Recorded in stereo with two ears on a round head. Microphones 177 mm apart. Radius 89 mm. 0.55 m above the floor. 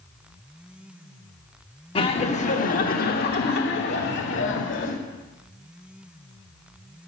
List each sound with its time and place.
1.9 s laughter: 25° left (ahead or behind), 1.1 m; by 5.0 s 65° left (ahead or behind), 2 m